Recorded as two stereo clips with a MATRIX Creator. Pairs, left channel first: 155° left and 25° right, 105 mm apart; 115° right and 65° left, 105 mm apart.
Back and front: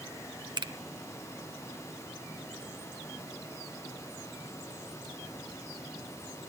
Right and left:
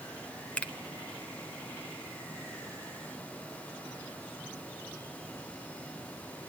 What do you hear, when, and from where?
0.6 s a finger snap: 40° right, 0.9 m